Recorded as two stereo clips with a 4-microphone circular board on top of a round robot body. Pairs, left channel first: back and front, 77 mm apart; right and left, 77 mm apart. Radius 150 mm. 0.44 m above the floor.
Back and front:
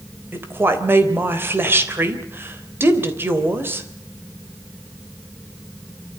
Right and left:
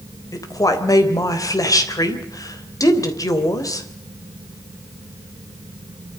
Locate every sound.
0.3 s a woman speaking: 60° right, 3.5 m